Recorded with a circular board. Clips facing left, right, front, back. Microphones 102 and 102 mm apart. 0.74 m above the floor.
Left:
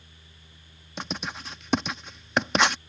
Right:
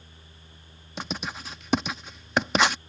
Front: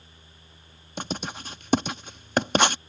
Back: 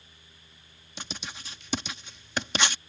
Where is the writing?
Straight ahead.